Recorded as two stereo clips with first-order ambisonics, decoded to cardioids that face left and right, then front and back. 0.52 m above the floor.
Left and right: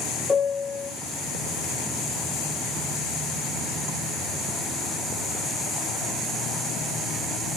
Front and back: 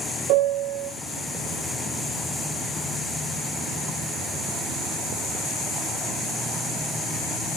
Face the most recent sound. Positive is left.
turn(degrees=165)